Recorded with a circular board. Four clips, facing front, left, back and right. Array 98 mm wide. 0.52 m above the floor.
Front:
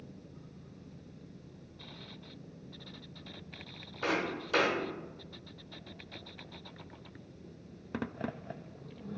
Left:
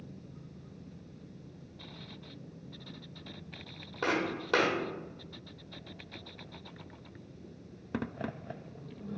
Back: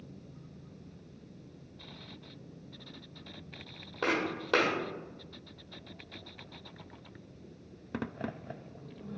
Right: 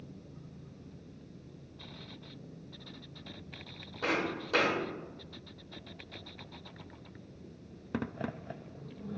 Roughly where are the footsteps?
Behind left.